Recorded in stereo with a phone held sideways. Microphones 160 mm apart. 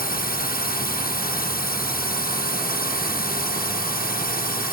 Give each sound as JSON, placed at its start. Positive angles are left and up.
{"t": 0.0, "sound": "a drone", "side_deg": 75}